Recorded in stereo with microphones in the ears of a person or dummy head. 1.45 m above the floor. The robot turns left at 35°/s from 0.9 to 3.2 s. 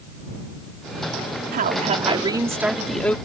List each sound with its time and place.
1.5 s a woman speaking: 135° right; by 3.2 s 165° left